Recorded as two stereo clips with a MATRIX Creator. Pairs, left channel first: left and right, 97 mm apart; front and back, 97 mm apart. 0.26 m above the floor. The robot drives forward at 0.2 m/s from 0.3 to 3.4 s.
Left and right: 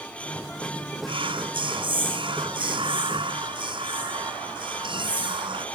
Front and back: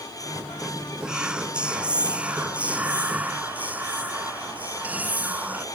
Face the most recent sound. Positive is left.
turn(degrees=-105)